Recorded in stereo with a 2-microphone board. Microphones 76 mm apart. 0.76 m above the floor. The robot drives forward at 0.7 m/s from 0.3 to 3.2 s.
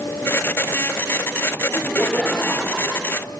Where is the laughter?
10° left (ahead or behind), 1.6 m; by 3.3 s 5° left (ahead or behind), 2.5 m.